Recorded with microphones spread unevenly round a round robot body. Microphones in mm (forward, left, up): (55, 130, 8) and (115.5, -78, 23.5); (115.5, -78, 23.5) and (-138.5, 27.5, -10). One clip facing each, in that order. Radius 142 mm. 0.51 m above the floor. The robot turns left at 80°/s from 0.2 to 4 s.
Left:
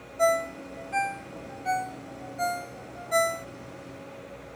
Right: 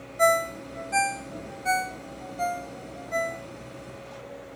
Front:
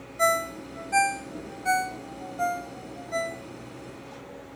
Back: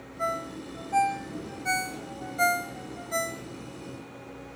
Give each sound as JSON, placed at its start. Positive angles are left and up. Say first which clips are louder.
{"t": 0.2, "sound": "a ringtone", "louder": "right 1 dB, front 6 dB", "azimuth_deg": -10}